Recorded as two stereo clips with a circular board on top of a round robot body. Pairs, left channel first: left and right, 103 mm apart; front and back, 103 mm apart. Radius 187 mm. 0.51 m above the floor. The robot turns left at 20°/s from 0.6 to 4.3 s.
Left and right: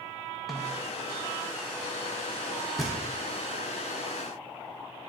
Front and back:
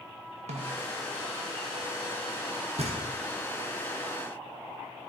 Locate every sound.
0.5 s a snare drum: straight behind, 0.8 m; by 0.9 s 175° left, 0.8 m
2.8 s knocking: straight behind, 1.3 m; by 3.0 s 175° left, 1.3 m